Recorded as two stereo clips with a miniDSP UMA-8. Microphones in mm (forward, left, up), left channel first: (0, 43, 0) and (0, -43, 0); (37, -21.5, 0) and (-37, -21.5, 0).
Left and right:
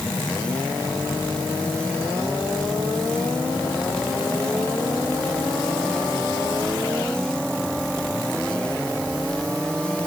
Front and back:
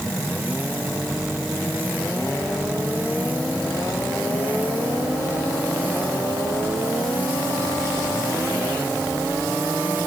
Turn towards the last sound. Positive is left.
No sound to turn to.